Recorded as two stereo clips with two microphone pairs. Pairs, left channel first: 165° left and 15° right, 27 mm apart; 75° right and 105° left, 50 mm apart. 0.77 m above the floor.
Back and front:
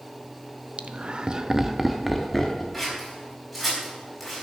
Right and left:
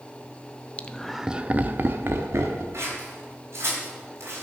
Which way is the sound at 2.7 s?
70° left.